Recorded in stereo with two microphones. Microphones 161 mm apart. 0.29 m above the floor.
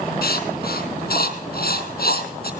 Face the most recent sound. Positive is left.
turn(degrees=70)  # may be behind; listen again after turning